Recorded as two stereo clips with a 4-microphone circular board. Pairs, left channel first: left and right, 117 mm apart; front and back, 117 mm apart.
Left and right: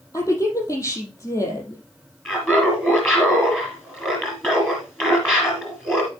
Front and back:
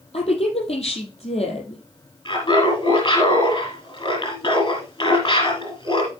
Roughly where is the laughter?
Ahead left.